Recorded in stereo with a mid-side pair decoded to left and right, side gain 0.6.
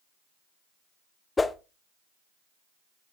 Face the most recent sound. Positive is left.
turn(degrees=20)